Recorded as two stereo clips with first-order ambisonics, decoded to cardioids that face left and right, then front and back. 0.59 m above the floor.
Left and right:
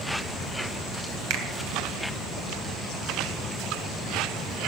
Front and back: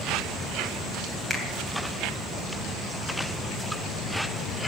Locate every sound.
1.3 s a finger snap: 95° right, 2.5 m